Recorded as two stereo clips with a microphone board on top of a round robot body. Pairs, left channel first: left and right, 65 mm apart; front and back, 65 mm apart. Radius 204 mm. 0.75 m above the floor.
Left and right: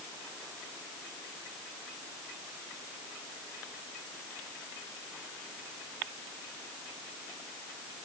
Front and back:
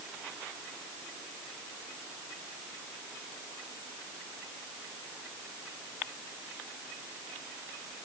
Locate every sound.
Only background noise.